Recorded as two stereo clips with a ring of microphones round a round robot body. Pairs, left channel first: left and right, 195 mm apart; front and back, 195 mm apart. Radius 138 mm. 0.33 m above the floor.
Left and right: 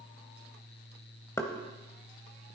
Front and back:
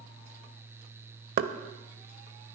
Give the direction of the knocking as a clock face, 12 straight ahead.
6 o'clock.